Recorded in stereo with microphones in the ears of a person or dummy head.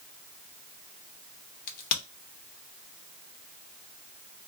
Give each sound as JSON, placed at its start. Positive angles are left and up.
{"t": 1.7, "sound": "a crack", "side_deg": 55, "distance_m": 0.9}